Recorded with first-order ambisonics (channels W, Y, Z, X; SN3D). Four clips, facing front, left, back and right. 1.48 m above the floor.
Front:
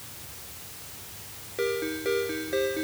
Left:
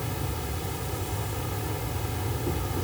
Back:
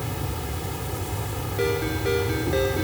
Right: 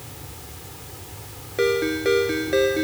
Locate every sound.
0.0 s an insect: 150° left
1.6 s a ringtone: 100° right